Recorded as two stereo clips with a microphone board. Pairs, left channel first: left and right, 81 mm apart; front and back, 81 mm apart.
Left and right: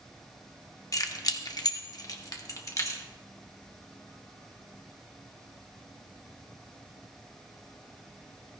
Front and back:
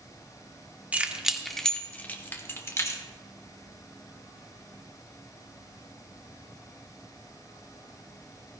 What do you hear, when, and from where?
0.9 s keys jangling: 115° left, 0.8 m; by 3.0 s 45° left, 1.3 m